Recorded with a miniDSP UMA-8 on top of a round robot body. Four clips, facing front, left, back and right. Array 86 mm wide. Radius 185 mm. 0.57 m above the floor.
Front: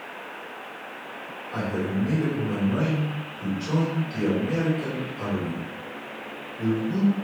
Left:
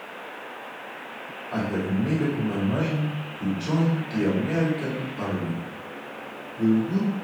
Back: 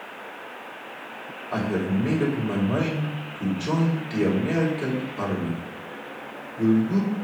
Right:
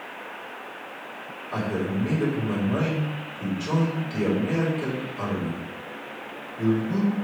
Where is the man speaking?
170° left, 4 m.